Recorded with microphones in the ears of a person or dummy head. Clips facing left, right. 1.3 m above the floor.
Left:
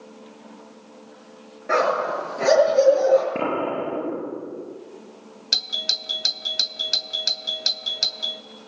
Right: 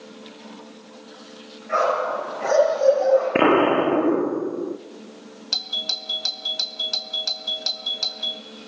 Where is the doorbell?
25° left (ahead or behind), 0.8 m.